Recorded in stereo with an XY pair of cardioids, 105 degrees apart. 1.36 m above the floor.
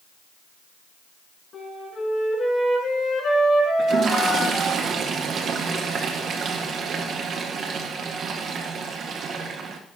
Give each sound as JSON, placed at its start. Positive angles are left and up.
{"t": 1.5, "sound": "a flute", "azimuth_deg": 45, "distance_m": 4.5}
{"t": 3.8, "sound": "a toilet flushing", "azimuth_deg": -55, "distance_m": 1.8}